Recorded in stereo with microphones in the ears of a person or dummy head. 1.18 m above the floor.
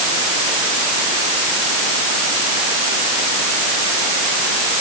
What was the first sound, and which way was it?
Only background noise.